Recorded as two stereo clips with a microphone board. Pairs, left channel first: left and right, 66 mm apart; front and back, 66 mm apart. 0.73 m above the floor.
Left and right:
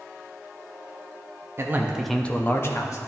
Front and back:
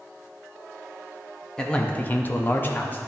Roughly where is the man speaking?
Right.